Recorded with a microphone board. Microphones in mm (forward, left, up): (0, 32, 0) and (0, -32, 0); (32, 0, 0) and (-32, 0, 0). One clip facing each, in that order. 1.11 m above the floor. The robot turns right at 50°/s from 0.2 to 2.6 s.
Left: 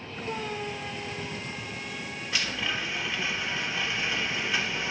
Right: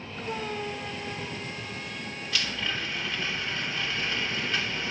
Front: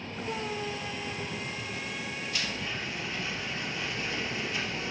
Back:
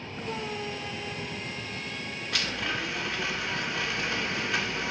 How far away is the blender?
About 1.9 m.